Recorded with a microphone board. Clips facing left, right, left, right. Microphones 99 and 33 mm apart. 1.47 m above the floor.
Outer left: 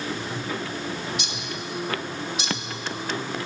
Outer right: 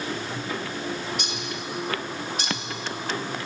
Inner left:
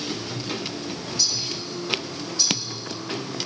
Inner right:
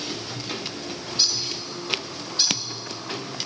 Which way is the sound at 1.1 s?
45° right (ahead or behind).